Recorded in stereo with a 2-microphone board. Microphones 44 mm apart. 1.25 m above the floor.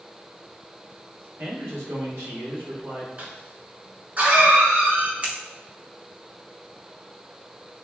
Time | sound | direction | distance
1.4 | a man speaking | 80° right | 1.4 m
3.2 | a cough | 40° right (ahead or behind) | 1.3 m
5.2 | scissors | 30° right (ahead or behind) | 0.7 m